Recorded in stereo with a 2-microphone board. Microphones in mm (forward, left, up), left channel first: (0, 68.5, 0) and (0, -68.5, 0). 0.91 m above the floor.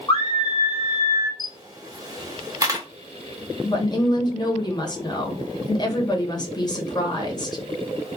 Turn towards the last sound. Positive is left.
turn(degrees=30)  # may be behind; listen again after turning